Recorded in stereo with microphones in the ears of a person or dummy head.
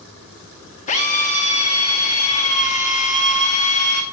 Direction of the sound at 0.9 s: 40° left (ahead or behind).